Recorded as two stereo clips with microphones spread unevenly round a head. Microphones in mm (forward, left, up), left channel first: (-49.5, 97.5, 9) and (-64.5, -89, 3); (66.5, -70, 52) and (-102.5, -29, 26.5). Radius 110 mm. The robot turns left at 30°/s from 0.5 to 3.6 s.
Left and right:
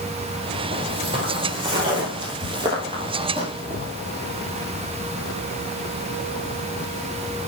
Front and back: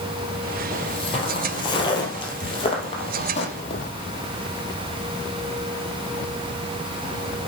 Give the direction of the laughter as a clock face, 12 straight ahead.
I don't hear laughter.